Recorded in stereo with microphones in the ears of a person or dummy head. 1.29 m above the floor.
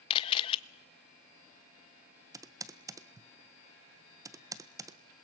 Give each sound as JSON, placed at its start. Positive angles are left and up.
{"t": 0.1, "sound": "a camera shutter", "side_deg": 25, "distance_m": 0.6}
{"t": 2.3, "sound": "typing on a keyboard", "side_deg": -15, "distance_m": 0.6}